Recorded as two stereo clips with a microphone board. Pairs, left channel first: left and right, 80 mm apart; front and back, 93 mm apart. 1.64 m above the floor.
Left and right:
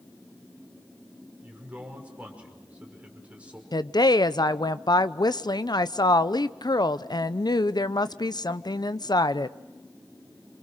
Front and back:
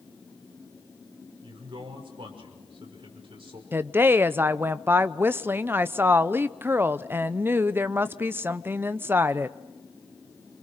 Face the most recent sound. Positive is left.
turn(degrees=115)